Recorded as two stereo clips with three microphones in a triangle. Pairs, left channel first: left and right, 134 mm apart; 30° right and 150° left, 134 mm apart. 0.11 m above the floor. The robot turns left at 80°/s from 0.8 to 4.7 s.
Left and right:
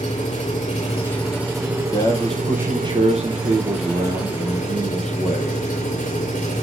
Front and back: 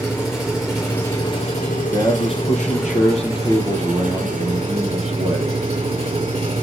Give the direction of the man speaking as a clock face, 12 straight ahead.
11 o'clock.